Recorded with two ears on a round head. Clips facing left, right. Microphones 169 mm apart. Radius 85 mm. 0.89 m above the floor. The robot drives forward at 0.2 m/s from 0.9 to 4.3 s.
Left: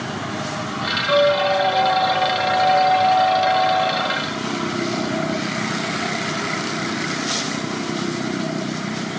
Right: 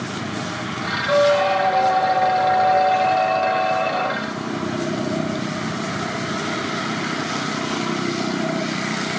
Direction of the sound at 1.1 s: 20° right (ahead or behind).